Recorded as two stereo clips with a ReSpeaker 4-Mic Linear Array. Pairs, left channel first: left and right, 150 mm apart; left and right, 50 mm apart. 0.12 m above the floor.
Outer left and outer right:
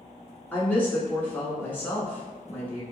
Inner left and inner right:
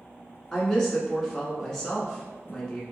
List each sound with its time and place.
0.5 s a woman speaking: 10° left (ahead or behind), 1.0 m